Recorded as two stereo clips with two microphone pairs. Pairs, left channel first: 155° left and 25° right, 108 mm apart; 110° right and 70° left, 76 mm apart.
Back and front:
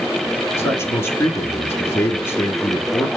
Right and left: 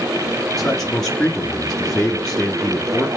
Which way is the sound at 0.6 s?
Straight behind.